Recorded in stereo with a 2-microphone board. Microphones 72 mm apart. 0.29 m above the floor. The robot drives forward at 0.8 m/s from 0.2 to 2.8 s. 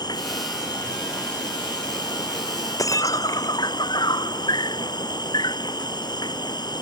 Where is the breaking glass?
55° left (ahead or behind).